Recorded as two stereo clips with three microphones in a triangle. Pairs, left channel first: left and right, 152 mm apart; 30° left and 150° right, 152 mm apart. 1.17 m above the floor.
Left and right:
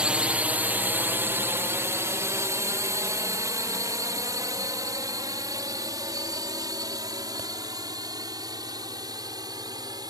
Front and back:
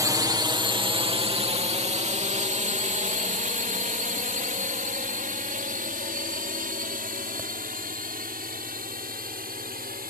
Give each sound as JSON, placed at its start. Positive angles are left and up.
{"t": 0.0, "sound": "a drone", "azimuth_deg": -160}